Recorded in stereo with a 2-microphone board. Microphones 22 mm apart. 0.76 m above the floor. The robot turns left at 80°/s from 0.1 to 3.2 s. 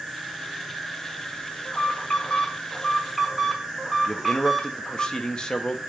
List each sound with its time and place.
0.0 s an insect: 120° right, 3.5 m; by 5.9 s 5° right, 3.5 m
1.6 s an alarm: 115° left, 2 m; by 5.1 s 5° right, 2 m
4.1 s a man speaking: 40° left (ahead or behind), 0.9 m